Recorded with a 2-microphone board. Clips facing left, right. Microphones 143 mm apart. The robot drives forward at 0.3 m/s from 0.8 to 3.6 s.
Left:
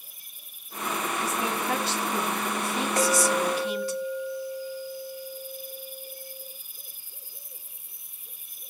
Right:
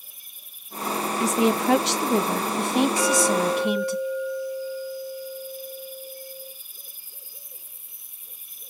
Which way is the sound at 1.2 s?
85° right.